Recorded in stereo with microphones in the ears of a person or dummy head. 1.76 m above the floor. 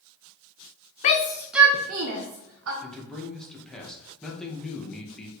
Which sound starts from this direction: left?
A shout, at 1.0 s.